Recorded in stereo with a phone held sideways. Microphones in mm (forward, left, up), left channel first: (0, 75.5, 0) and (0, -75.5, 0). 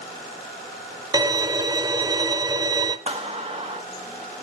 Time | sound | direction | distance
1.1 | a violin | 25° right (ahead or behind) | 0.6 m
3.1 | a clap | 40° right (ahead or behind) | 1.4 m